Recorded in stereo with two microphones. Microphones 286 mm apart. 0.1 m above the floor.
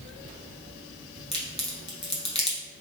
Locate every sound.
1.3 s a crack: 20° left (ahead or behind), 1.4 m